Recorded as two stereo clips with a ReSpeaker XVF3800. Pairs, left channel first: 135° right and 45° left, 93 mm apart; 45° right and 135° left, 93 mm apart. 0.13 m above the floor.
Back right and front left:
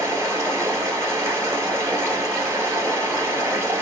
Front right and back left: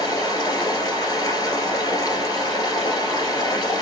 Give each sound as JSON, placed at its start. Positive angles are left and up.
{"t": 0.0, "sound": "running water", "azimuth_deg": -10, "distance_m": 1.5}